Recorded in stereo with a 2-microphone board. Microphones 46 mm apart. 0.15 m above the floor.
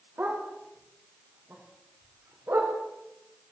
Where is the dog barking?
45° right (ahead or behind), 9 m; by 2.8 s 60° right (ahead or behind), 9.5 m.